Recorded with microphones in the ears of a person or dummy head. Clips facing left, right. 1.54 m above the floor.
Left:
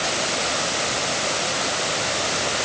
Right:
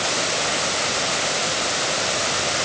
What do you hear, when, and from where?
Only background noise.